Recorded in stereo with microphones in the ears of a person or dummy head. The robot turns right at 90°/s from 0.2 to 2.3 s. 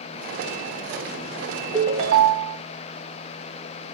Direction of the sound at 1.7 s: 160° right.